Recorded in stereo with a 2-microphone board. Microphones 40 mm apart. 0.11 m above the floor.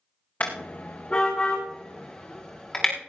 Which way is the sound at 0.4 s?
40° left (ahead or behind).